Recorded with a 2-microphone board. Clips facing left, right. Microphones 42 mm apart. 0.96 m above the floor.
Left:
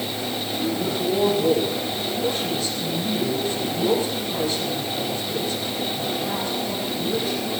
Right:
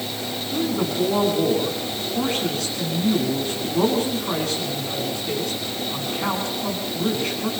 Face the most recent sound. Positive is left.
turn(degrees=-80)